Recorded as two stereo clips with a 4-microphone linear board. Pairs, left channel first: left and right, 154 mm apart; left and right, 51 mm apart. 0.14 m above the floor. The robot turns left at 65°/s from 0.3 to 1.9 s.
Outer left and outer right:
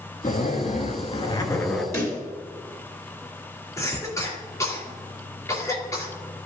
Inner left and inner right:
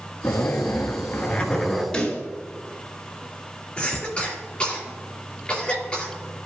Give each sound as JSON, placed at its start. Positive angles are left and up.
{"t": 0.2, "sound": "a zipper", "azimuth_deg": 105, "distance_m": 1.1}
{"t": 1.9, "sound": "a pop", "side_deg": 20, "distance_m": 2.5}
{"t": 3.8, "sound": "a cough", "side_deg": 20, "distance_m": 3.0}